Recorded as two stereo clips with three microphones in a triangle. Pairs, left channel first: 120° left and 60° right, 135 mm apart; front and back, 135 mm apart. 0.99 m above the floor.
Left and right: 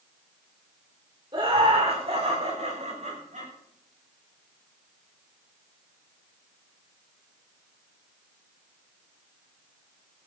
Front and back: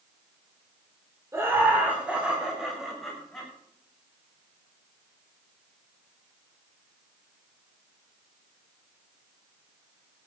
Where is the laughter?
110° right, 3 m; by 3.5 s 85° right, 6 m.